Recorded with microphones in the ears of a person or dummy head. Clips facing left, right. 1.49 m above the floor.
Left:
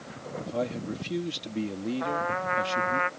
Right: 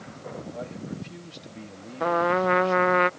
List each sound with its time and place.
0.4 s a man speaking: 80° left
2.0 s a trumpet: 55° right (ahead or behind)